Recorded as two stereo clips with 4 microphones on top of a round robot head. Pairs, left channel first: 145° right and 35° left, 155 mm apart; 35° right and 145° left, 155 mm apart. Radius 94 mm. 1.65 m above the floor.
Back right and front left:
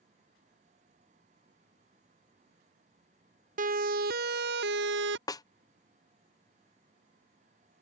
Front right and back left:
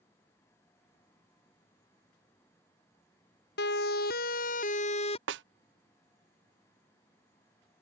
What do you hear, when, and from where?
3.6 s a siren: 10° right; by 5.2 s 25° left
5.3 s a snare drum: 145° left